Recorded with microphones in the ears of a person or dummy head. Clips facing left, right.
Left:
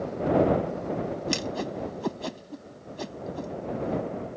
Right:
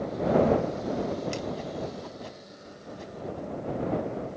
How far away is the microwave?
I don't hear a microwave.